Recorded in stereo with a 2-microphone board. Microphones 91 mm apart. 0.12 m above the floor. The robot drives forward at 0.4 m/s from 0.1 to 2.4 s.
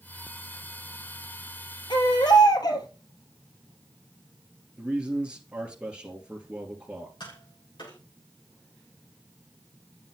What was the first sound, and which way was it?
A baby crying, 55° left (ahead or behind).